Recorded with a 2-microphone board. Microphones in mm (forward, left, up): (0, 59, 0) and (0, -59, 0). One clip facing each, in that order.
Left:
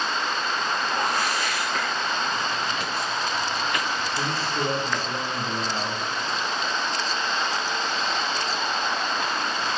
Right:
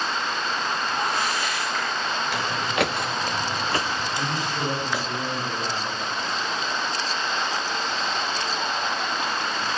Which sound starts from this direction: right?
Footsteps, at 2.3 s.